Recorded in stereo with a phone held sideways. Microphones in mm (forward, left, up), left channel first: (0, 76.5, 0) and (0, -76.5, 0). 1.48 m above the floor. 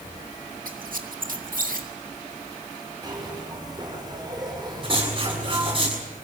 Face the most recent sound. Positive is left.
turn(degrees=-40)  # may be behind; listen again after turning